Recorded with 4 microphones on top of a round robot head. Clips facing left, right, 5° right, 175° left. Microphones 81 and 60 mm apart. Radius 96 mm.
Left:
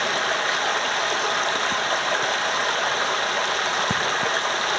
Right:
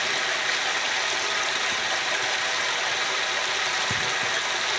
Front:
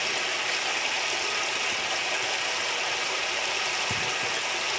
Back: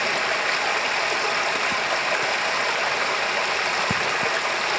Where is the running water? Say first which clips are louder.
Left 4 dB, back 7 dB; 135° left, 1.4 m.